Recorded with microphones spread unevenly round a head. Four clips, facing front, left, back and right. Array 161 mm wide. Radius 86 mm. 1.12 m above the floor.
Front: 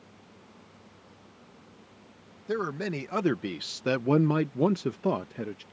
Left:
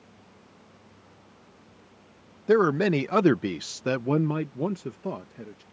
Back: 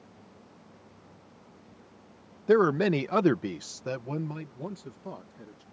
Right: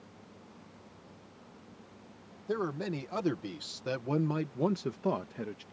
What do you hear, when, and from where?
2.5 s a man speaking: 110° left; by 5.6 s 15° right